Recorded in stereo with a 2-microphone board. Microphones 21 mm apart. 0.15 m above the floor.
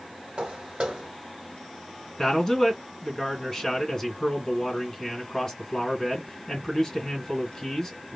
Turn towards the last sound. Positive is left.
turn(degrees=25)  # may be behind; listen again after turning